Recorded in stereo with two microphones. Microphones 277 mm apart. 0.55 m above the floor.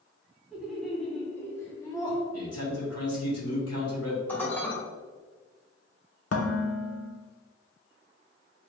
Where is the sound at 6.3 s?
60° left (ahead or behind), 0.6 m.